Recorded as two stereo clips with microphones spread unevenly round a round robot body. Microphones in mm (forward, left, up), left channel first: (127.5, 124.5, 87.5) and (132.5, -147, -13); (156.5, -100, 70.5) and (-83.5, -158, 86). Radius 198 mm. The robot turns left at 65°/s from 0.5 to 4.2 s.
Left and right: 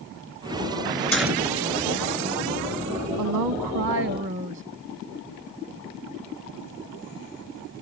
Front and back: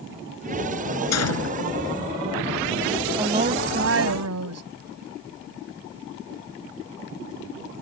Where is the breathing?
No breathing in this recording.